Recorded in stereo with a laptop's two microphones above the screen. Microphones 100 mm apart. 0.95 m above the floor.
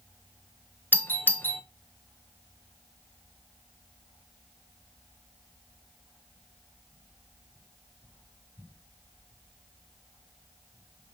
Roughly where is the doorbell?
Centre.